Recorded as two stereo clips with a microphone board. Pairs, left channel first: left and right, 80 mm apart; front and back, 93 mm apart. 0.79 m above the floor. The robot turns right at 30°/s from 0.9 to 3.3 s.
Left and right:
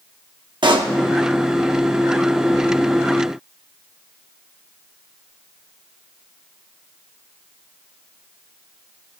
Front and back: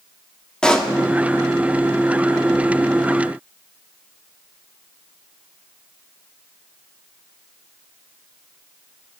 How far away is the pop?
About 1.1 m.